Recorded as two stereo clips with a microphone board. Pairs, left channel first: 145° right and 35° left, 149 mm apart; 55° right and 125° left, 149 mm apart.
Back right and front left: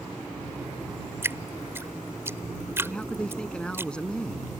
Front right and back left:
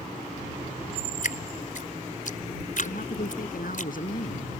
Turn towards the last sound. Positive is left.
turn(degrees=-65)